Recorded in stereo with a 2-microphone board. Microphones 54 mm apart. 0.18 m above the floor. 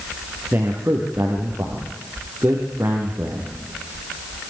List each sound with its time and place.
0.5 s a man speaking: 35° right (ahead or behind), 4 m